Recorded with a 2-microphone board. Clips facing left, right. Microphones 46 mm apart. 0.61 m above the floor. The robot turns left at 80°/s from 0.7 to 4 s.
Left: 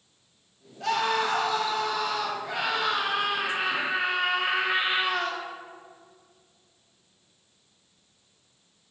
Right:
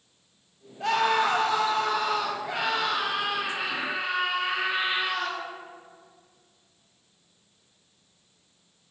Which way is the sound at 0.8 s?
35° right.